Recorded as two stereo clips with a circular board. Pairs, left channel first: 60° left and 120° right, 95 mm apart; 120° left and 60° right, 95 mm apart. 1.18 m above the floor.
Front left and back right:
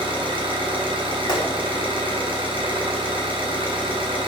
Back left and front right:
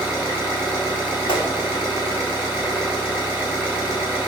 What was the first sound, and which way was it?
An engine running, 140° right.